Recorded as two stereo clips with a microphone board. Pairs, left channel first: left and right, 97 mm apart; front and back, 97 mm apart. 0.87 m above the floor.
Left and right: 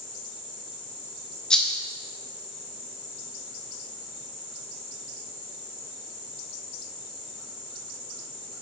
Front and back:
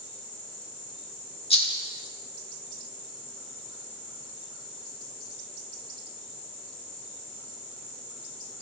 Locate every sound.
1.5 s a rattle: 10° left, 1.5 m